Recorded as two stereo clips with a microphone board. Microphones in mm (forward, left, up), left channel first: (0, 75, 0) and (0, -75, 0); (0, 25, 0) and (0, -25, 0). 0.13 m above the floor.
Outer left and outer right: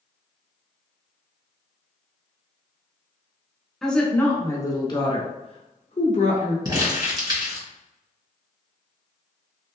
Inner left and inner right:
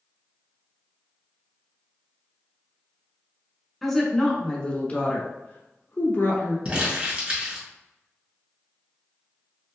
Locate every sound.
3.8 s a woman speaking: centre (ahead or behind), 1.1 m; by 6.5 s 55° left (ahead or behind), 1.8 m
6.7 s crumpling: 30° right (ahead or behind), 1.9 m